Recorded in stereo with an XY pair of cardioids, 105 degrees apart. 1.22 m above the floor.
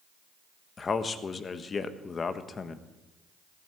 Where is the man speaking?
35° left, 1.3 m.